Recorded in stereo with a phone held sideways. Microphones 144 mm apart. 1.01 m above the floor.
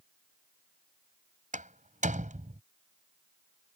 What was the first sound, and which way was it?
A door slam, 60° right (ahead or behind).